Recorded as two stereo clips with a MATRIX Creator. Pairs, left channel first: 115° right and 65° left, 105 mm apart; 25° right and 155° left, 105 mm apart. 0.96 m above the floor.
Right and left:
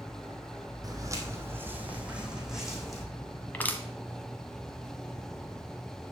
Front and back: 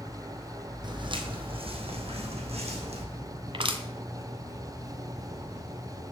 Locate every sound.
0.8 s footsteps: 120° left, 2 m; by 3.0 s 160° left, 3 m
3.5 s crushing: 175° left, 1.3 m